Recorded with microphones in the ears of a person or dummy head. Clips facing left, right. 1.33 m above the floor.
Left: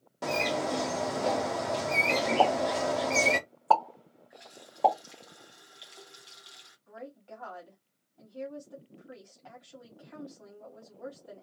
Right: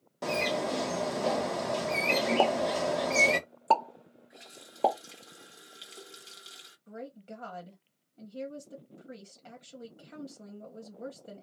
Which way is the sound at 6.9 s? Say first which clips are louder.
Right 2 dB; 35° right (ahead or behind).